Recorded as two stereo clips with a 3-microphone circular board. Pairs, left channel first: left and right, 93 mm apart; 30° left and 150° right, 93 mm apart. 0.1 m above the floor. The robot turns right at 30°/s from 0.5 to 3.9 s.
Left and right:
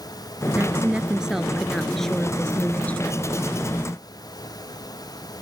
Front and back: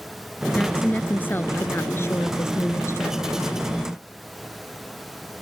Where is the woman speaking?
35° right; by 3.2 s 45° left.